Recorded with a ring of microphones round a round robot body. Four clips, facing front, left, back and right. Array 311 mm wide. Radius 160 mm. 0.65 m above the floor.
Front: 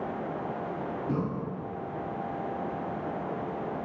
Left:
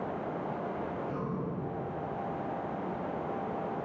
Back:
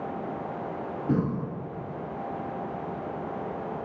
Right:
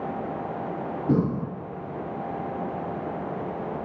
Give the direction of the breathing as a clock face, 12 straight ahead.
4 o'clock.